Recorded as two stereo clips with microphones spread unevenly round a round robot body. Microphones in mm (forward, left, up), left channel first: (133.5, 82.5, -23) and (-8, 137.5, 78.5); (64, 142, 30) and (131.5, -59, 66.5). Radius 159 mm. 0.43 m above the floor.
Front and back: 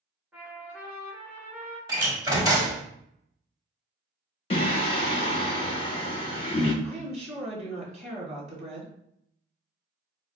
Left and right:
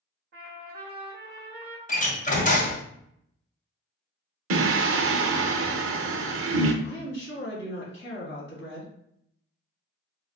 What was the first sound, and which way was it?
A trumpet, 60° right.